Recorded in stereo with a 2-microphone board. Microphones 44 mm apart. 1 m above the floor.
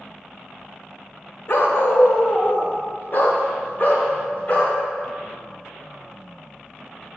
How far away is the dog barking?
About 1.0 m.